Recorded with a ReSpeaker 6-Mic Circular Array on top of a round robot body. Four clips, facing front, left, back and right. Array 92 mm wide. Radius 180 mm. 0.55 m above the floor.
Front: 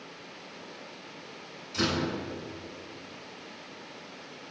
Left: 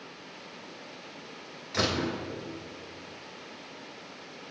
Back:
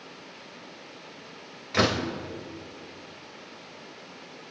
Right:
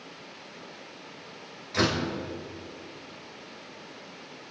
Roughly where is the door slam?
Behind.